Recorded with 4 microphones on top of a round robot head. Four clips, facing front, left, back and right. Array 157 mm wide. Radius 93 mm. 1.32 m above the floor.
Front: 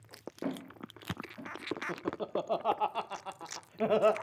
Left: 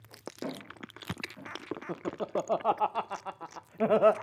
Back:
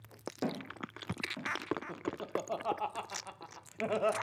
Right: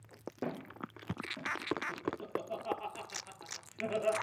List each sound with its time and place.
0.4 s footsteps: 155° right, 4.5 m; by 1.5 s 165° right, 5 m
1.9 s laughter: 75° left, 0.5 m